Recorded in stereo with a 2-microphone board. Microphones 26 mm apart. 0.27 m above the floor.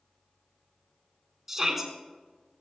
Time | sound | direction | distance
1.5 | a shout | 15° right (ahead or behind) | 3.5 m